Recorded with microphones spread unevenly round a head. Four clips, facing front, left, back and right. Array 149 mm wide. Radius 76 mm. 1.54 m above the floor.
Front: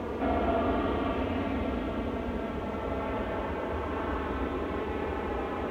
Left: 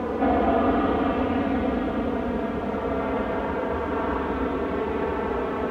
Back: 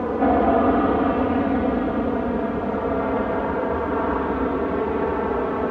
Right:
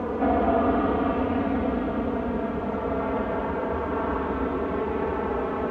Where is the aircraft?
165° left.